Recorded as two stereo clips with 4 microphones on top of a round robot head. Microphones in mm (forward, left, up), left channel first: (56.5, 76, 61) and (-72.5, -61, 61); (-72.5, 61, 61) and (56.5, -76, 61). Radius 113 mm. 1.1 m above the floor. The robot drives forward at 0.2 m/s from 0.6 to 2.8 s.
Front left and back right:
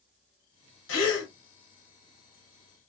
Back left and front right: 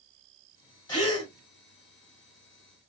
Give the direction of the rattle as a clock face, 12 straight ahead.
I don't hear a rattle.